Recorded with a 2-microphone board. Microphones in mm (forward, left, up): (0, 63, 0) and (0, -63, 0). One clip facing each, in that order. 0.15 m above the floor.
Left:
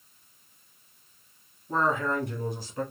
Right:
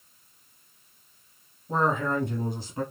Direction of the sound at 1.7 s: 20° right (ahead or behind).